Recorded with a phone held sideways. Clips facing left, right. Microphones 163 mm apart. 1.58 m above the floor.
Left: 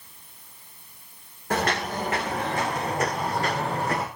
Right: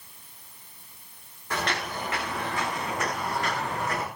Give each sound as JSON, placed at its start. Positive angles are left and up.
{"t": 1.5, "sound": "footsteps", "side_deg": 50, "distance_m": 4.5}